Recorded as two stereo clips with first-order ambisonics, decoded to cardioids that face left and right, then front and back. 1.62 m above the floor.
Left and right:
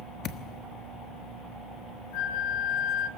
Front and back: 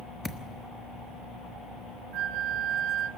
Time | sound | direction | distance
0.2 | a thud | 80° left | 1.1 m
2.1 | a flute | 130° left | 1.3 m